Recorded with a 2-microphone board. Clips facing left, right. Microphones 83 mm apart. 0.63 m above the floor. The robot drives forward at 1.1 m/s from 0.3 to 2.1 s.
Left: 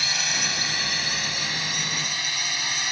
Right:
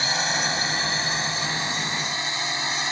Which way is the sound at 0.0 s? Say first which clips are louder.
Right 4 dB; 30° right (ahead or behind).